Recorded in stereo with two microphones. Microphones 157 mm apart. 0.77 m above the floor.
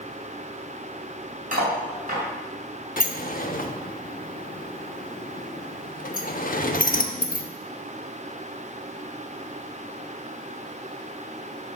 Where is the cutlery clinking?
65° right (ahead or behind), 3.5 m.